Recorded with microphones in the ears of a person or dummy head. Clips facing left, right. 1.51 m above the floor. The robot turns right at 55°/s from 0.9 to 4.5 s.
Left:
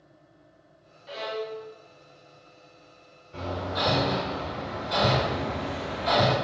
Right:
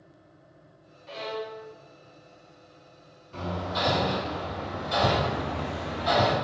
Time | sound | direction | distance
1.1 | a violin | 10° left (ahead or behind) | 0.5 m
3.3 | hammering | 60° right (ahead or behind) | 1.8 m